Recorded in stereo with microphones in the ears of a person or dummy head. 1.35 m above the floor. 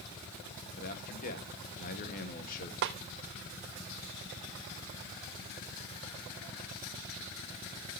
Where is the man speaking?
50° left (ahead or behind), 2.5 m.